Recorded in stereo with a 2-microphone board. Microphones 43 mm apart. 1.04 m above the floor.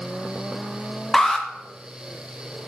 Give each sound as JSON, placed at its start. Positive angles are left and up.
{"t": 1.1, "sound": "an alarm", "side_deg": 5, "distance_m": 0.9}